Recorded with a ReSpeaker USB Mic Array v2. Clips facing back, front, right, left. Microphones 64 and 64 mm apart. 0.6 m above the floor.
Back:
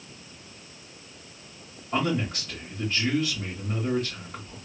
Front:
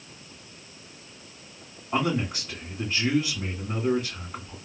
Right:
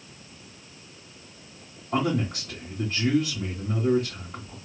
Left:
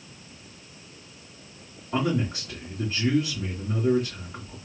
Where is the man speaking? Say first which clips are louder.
Front 1 dB, even; 85° right, 1.8 m.